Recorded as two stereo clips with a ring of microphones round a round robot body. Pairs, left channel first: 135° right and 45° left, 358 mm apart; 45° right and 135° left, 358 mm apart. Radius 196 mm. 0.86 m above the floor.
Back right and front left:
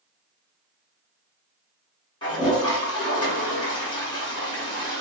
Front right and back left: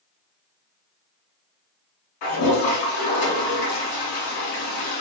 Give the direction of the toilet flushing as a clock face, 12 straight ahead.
2 o'clock.